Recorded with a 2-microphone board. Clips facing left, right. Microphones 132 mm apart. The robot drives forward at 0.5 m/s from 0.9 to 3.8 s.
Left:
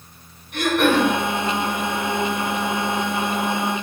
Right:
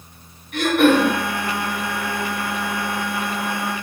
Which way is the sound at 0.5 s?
Centre (ahead or behind).